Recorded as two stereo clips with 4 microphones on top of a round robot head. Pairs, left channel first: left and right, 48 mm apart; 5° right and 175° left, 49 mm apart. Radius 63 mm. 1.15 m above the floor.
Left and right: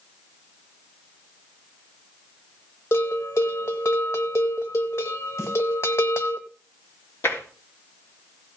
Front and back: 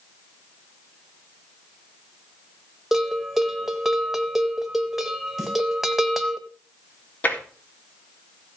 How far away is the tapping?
About 3.5 m.